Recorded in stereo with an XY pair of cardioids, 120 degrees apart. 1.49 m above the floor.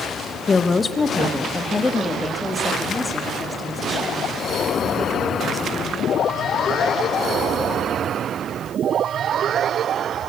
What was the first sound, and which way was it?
A woman speaking, 30° left.